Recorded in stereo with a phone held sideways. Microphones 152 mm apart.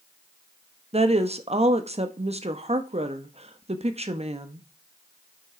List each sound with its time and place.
0.9 s a woman speaking: 40° right (ahead or behind), 1.1 m